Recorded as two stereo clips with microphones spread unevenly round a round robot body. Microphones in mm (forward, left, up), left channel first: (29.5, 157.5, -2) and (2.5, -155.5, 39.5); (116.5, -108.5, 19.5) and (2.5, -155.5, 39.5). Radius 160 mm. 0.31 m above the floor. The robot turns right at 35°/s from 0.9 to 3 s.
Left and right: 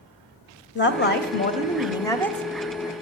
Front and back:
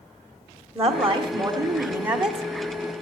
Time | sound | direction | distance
0.8 | a woman speaking | 110° left | 1.2 m